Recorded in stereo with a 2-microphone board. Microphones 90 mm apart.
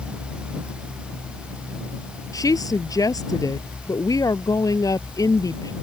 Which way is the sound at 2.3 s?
45° left (ahead or behind).